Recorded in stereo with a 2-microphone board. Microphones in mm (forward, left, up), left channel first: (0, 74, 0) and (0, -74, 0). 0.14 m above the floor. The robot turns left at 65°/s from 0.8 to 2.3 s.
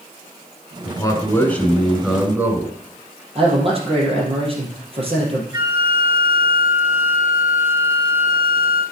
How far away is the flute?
About 1.8 m.